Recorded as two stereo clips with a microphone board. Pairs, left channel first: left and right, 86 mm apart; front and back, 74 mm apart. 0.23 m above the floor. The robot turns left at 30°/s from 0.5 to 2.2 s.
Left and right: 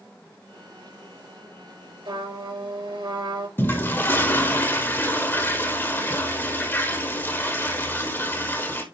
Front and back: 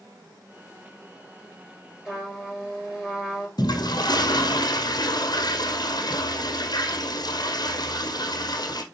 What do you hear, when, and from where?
2.0 s a trumpet: 95° right, 4.5 m; by 3.5 s 100° right, 4.5 m
3.6 s a toilet flushing: 25° left, 1.4 m